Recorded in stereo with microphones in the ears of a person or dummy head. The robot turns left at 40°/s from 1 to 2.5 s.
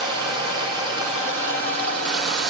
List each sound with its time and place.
0.0 s running water: 30° right, 4 m; by 2.5 s 90° right, 4 m